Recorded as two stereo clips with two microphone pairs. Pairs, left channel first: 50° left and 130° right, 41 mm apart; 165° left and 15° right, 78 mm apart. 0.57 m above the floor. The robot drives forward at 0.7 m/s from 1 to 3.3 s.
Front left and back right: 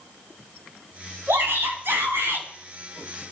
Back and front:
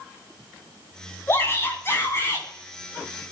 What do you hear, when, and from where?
1.3 s a shout: 135° right, 5.5 m; by 2.5 s 140° right, 6 m